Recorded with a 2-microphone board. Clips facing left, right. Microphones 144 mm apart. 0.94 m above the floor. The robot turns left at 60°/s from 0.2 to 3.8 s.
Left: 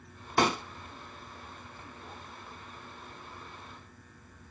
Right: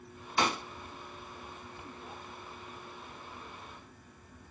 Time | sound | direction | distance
0.4 | a pop | 55° left (ahead or behind) | 0.7 m